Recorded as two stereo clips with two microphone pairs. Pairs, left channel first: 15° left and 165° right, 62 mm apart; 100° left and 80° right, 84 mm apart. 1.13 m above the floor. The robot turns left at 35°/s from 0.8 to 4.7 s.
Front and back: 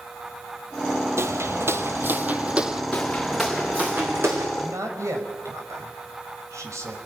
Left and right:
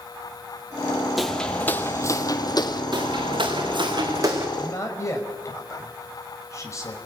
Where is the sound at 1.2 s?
165° right, 1.5 m; by 2.8 s 110° left, 2 m.